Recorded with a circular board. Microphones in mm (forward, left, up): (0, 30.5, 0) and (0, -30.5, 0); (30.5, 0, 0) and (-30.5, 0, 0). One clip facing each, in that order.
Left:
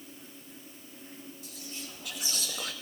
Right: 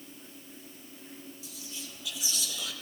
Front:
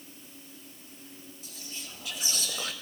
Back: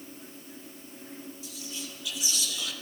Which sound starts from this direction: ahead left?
Whispering, at 1.4 s.